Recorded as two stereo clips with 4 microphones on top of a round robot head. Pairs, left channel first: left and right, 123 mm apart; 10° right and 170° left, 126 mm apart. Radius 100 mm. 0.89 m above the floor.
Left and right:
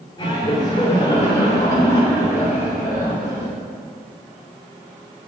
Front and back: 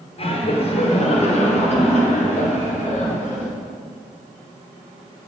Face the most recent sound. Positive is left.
turn(degrees=15)